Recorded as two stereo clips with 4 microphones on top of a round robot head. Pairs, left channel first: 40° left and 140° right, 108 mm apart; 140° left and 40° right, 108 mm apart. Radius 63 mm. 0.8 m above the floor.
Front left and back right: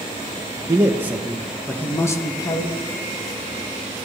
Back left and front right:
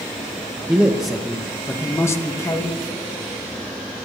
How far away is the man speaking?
About 1.0 m.